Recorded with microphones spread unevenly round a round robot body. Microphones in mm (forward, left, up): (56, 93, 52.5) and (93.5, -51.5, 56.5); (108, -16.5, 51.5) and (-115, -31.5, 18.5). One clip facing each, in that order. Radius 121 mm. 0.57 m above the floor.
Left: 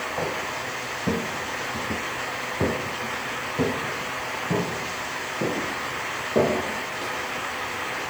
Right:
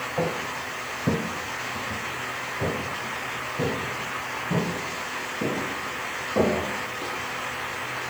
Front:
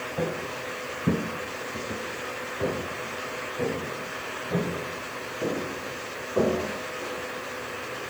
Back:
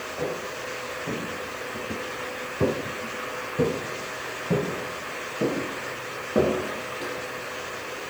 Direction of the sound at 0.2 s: Straight ahead.